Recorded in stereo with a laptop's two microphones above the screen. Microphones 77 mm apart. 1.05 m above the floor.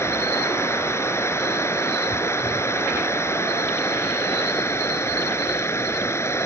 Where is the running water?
35° left (ahead or behind).